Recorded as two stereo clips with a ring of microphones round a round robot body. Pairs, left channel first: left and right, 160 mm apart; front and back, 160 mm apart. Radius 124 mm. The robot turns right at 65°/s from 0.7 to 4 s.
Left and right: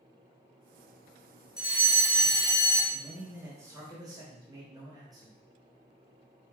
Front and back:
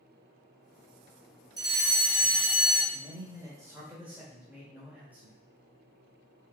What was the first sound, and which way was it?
A fire alarm, 170° right.